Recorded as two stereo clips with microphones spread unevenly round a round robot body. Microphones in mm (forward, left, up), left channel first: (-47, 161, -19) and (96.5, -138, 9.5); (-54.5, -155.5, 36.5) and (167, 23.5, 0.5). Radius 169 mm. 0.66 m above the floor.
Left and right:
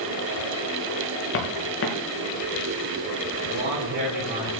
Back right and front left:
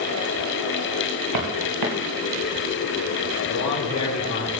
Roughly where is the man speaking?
Behind right.